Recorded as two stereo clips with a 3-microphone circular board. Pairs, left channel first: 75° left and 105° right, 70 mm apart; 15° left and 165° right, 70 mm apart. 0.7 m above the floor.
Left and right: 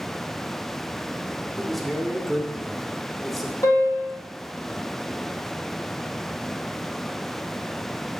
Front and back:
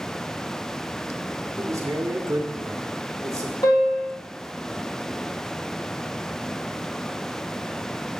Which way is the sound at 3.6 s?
40° left.